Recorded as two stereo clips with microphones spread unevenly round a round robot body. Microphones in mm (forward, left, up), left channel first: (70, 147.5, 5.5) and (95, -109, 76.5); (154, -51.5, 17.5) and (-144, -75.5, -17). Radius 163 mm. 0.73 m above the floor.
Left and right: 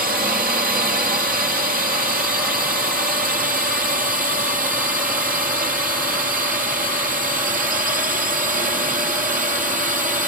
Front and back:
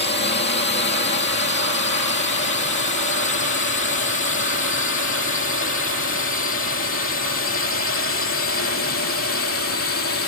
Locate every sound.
0.0 s a drone: 30° right; by 10.3 s 20° right